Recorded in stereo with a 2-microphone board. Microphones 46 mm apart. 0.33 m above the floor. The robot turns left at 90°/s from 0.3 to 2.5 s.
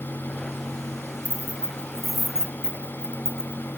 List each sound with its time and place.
1.2 s keys jangling: 30° left (ahead or behind), 0.6 m; by 3.7 s 15° right (ahead or behind), 0.6 m